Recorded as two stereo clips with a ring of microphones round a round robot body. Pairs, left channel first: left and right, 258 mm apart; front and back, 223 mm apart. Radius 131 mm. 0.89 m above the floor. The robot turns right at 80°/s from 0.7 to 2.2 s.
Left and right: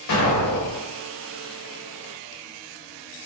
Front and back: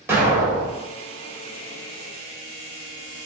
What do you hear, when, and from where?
0.1 s an explosion: 100° left, 1.9 m; by 0.8 s 110° left, 1.9 m